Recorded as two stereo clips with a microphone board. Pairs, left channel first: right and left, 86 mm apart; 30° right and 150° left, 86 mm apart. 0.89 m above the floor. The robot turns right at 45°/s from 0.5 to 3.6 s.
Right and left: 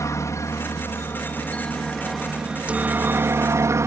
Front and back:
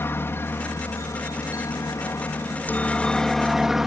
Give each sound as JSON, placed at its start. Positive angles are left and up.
{"t": 0.0, "sound": "a helicopter", "azimuth_deg": -75}